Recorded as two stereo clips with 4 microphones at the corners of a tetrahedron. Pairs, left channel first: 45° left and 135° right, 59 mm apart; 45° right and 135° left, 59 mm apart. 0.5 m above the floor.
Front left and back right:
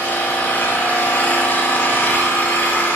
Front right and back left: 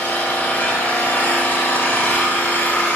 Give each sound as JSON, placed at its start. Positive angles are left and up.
{"t": 0.0, "sound": "an engine running", "azimuth_deg": 5, "distance_m": 1.3}